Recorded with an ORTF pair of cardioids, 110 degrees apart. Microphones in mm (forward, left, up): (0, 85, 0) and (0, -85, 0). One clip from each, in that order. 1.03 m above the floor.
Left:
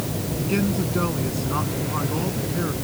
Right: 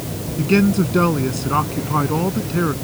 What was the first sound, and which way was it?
A man speaking, 50° right.